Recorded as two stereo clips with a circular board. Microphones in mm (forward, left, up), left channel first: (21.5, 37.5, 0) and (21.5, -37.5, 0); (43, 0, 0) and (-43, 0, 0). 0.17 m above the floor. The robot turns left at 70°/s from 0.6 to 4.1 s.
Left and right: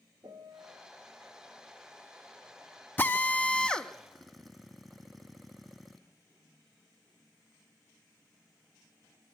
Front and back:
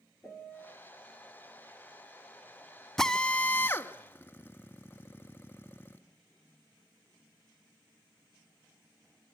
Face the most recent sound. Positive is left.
turn(degrees=0)